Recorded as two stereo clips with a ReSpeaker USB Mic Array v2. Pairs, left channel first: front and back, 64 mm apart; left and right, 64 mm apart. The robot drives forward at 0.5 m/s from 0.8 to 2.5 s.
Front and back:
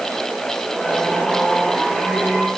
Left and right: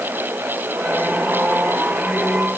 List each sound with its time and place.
Only background noise.